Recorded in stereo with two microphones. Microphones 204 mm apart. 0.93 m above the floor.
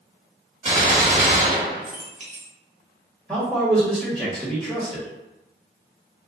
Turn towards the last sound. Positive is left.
turn(degrees=5)  # may be behind; listen again after turning